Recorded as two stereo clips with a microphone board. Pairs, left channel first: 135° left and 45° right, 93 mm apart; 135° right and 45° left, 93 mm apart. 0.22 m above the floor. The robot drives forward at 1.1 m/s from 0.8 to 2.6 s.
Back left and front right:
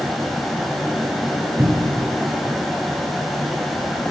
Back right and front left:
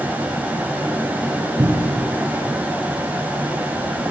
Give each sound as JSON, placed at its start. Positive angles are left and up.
{"t": 1.6, "sound": "a cupboard door", "azimuth_deg": 20, "distance_m": 1.0}